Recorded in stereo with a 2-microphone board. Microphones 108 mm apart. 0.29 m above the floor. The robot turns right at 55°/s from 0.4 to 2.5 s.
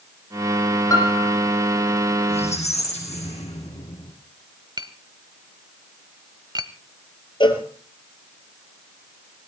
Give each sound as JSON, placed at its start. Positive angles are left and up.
{"t": 0.9, "sound": "a piano", "side_deg": 30, "distance_m": 5.5}
{"t": 2.3, "sound": "a squeak", "side_deg": 70, "distance_m": 6.0}
{"t": 4.8, "sound": "tapping", "side_deg": -40, "distance_m": 1.1}
{"t": 7.4, "sound": "a cowbell", "side_deg": 45, "distance_m": 2.5}